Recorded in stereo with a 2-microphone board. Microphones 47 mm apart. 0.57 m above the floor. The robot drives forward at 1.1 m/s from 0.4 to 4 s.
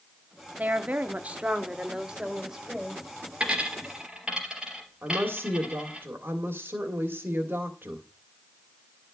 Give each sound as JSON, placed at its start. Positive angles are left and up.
{"t": 0.6, "sound": "a woman speaking", "side_deg": -35, "distance_m": 0.9}
{"t": 3.4, "sound": "a dropped coin", "side_deg": -20, "distance_m": 3.0}
{"t": 5.0, "sound": "a woman speaking", "side_deg": -50, "distance_m": 1.8}